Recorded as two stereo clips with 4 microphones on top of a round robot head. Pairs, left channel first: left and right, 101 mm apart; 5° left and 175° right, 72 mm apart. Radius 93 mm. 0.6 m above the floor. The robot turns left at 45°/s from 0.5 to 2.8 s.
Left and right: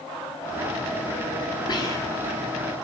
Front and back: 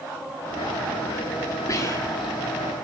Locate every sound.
1.7 s whispering: 50° left, 1.4 m; by 2.4 s 20° left, 1.4 m